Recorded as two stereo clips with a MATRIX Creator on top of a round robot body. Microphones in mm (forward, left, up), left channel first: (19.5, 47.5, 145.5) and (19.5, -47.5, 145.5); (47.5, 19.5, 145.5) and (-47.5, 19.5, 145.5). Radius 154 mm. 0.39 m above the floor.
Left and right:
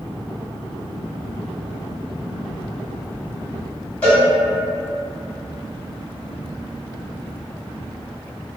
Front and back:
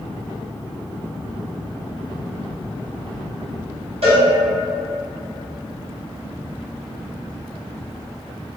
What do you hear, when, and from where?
4.0 s a cowbell: 165° left, 1.4 m